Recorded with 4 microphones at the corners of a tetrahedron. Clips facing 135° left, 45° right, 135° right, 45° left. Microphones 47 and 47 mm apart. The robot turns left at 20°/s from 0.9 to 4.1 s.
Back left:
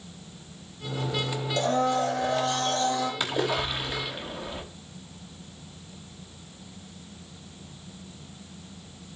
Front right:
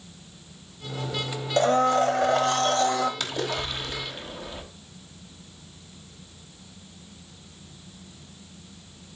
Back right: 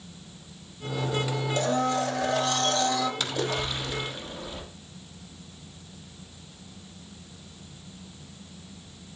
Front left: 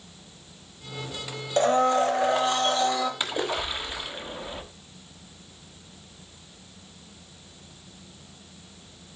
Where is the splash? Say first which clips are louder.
Back left 2 dB, front left 1 dB; 85° left, 1.2 m; by 4.6 s 70° left, 1.2 m.